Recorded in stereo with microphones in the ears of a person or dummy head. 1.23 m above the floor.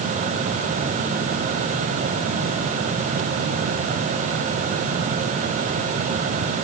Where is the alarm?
No alarm in this recording.